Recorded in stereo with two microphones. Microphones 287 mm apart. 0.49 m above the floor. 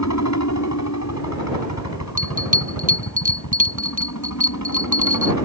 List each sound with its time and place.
0.0 s a helicopter: 65° left (ahead or behind)
2.2 s a bell: 25° right (ahead or behind)